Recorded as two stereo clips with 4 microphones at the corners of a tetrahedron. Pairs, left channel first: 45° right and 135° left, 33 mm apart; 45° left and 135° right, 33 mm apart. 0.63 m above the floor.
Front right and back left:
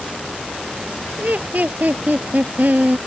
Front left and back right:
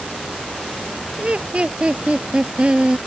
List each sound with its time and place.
1.2 s laughter: 170° left; by 3.0 s 165° left